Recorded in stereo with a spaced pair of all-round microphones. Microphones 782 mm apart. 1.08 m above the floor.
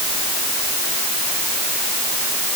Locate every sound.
Only background noise.